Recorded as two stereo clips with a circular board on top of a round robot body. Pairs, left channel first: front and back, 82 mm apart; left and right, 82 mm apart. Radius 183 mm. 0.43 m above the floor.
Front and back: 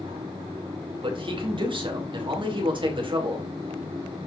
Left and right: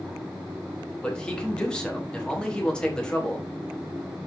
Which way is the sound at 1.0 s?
170° left.